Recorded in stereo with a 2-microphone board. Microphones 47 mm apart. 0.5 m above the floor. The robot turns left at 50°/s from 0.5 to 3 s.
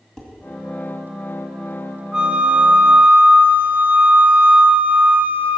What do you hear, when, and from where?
0.2 s dishes clattering: 10° left (ahead or behind), 2 m
2.1 s a flute: 30° right, 1.1 m; by 5.6 s 70° right, 1.1 m